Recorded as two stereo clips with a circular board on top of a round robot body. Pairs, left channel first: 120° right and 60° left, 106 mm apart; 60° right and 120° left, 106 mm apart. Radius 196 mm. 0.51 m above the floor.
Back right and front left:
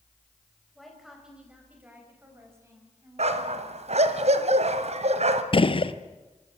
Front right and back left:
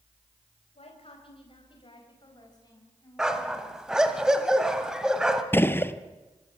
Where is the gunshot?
125° right, 1.4 m.